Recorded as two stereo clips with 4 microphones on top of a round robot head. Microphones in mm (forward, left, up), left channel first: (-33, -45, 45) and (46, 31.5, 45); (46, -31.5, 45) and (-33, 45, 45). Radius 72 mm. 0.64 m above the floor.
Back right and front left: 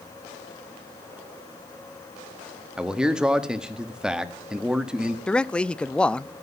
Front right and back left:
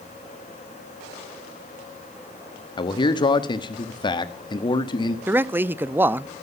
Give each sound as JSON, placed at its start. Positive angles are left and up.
{"t": 2.8, "sound": "a man speaking", "azimuth_deg": -35, "distance_m": 1.5}
{"t": 5.3, "sound": "a man speaking", "azimuth_deg": 160, "distance_m": 0.5}